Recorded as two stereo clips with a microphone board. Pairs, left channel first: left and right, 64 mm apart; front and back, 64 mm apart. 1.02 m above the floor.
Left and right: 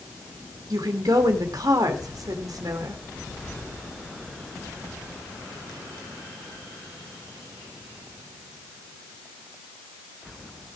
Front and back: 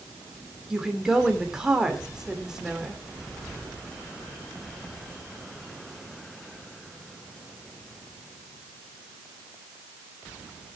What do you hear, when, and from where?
0.7 s a woman speaking: 100° right, 2.5 m